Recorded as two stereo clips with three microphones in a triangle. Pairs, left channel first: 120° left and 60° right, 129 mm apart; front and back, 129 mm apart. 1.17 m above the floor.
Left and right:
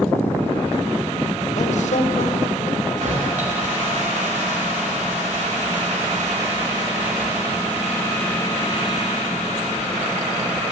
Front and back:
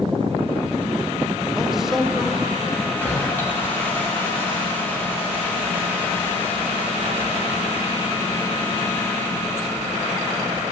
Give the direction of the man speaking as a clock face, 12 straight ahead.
9 o'clock.